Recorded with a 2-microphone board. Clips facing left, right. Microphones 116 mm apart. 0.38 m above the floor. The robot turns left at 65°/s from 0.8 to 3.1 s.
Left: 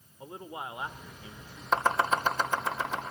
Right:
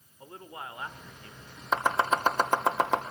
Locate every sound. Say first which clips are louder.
0.2 s a man speaking: left 3 dB; 15° left (ahead or behind), 1.4 m; by 1.6 s centre (ahead or behind), 1.4 m
1.7 s chopping: even; 5° right (ahead or behind), 2.5 m; by 3.0 s 85° right, 2.5 m